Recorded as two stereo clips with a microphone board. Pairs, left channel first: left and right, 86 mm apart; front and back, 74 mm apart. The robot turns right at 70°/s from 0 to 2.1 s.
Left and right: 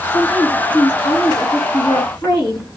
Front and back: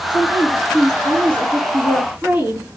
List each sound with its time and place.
0.1 s a woman speaking: 25° right, 3 m; by 2.7 s 115° left, 3 m